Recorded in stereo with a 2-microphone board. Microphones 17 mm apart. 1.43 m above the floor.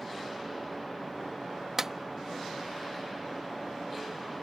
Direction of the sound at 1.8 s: 25° right (ahead or behind).